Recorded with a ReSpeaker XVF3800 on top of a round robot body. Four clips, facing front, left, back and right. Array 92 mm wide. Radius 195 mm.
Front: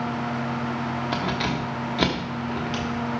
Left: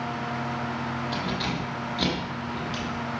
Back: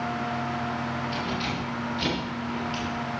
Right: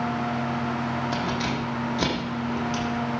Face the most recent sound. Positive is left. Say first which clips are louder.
# right 3 dB, front 4 dB
turn(degrees=-20)